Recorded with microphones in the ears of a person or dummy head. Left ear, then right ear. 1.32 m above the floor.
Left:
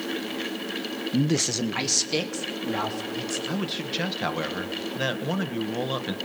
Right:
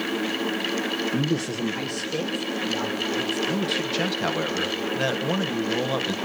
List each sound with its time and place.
1.1 s a man speaking: 15° left (ahead or behind), 0.7 m; by 3.4 s 65° left (ahead or behind), 3.5 m
3.5 s a man speaking: centre (ahead or behind), 1.1 m